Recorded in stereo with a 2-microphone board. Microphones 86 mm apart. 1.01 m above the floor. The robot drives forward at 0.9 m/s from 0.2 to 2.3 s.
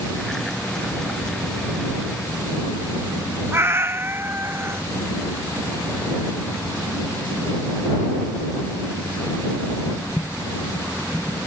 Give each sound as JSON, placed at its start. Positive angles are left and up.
{"t": 3.5, "sound": "a cat meowing", "side_deg": -30}